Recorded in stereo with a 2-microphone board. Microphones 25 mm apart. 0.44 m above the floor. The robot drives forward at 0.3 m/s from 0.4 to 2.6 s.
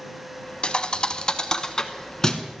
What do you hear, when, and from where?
0.6 s a thud: 45° left (ahead or behind), 0.6 m; by 2.5 s 25° left (ahead or behind), 1.1 m